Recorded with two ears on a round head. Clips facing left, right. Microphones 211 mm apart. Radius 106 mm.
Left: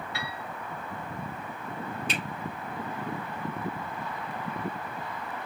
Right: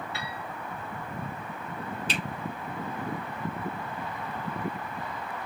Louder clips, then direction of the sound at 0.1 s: Even; 25° right (ahead or behind).